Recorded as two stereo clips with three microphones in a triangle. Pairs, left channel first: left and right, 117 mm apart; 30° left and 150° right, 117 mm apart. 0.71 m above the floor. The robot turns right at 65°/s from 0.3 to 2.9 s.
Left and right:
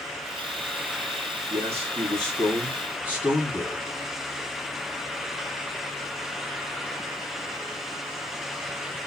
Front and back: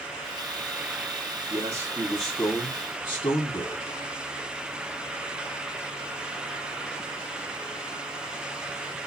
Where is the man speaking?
105° right, 1.5 m; by 3.8 s 15° right, 1.5 m.